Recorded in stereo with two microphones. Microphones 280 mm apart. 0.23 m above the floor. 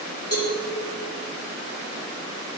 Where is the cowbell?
55° right (ahead or behind), 3.5 m.